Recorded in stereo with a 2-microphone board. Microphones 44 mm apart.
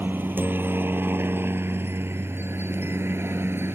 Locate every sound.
0.0 s a helicopter: 50° right (ahead or behind); by 3.8 s 65° right (ahead or behind)